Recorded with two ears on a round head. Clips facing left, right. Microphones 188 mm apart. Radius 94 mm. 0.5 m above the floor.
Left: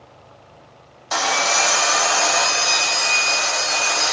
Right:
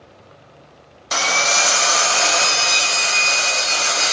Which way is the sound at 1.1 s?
35° right (ahead or behind).